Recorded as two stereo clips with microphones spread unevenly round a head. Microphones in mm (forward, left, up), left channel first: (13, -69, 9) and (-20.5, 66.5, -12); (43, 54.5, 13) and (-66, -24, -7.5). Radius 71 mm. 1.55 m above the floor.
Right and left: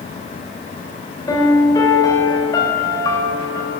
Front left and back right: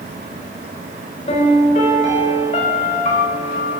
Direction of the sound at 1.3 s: 10° right.